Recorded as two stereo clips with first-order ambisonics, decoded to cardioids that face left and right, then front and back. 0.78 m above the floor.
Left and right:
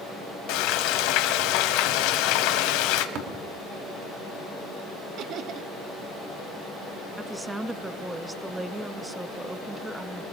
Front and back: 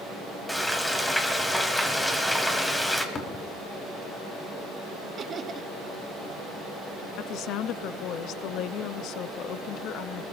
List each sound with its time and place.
0.5 s frying: 85° left, 1.6 m
3.1 s tapping: 60° right, 3 m
5.2 s laughter: 125° right, 0.7 m
7.2 s a woman speaking: 10° right, 0.7 m